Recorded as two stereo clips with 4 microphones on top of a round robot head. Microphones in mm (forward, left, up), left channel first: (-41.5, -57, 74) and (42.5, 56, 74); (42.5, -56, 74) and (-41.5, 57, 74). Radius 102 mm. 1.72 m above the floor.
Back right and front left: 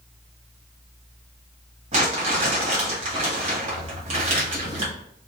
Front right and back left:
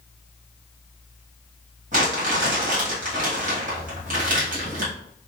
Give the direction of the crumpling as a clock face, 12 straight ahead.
9 o'clock.